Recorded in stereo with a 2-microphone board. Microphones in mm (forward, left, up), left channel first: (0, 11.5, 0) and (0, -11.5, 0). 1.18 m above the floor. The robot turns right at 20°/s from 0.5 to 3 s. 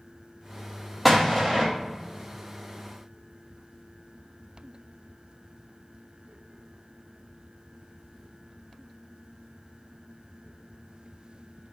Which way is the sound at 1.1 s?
5° right (ahead or behind).